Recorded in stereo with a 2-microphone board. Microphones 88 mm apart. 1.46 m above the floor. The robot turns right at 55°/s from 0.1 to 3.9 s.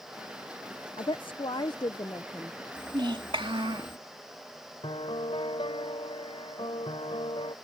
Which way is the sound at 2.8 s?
130° right.